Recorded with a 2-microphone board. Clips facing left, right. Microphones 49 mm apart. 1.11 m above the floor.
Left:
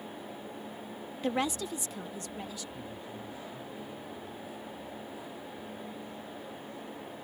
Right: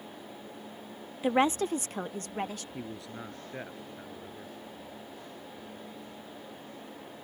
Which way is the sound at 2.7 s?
90° right.